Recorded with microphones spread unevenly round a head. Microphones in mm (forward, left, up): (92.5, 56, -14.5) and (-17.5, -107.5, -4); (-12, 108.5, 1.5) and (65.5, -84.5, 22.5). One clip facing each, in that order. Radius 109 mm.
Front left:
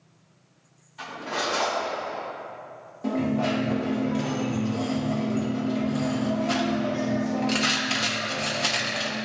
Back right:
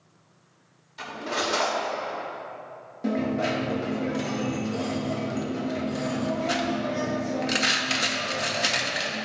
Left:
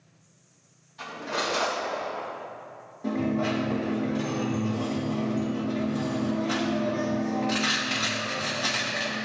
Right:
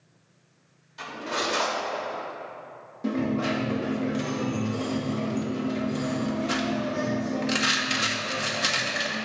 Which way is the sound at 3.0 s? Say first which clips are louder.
Front left 1 dB, even; 70° right.